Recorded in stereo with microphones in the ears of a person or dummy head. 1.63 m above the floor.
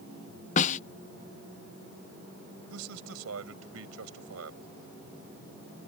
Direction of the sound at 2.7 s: 80° right.